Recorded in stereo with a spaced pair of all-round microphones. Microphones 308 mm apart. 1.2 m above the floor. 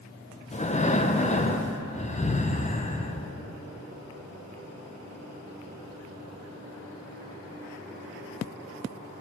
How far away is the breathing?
About 0.5 m.